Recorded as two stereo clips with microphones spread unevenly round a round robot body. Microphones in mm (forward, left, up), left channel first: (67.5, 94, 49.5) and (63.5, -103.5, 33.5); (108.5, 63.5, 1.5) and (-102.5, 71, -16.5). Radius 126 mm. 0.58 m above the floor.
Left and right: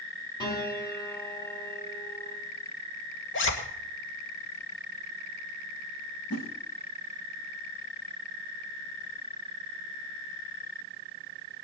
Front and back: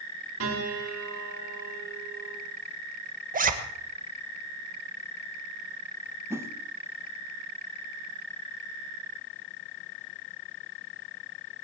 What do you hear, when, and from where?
0.4 s a piano: 165° left, 3.5 m
3.3 s a zipper: 130° left, 1.8 m
6.3 s a whoosh: 100° left, 1.2 m